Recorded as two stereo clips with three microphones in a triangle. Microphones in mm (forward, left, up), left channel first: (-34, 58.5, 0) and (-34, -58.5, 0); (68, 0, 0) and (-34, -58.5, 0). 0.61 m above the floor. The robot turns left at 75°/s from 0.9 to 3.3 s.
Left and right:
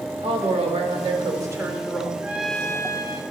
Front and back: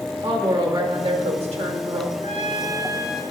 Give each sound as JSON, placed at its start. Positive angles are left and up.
{"t": 0.2, "sound": "a woman speaking", "azimuth_deg": -105, "distance_m": 1.7}
{"t": 2.2, "sound": "a trumpet", "azimuth_deg": -165, "distance_m": 1.1}